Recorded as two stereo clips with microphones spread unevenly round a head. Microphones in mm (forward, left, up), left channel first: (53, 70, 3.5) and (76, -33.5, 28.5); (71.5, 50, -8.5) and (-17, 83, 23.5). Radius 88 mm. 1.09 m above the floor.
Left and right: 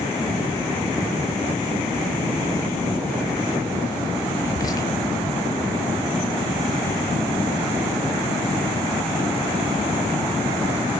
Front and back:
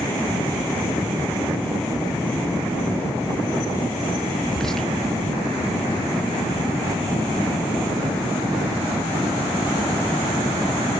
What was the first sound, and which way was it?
Whispering, 55° left.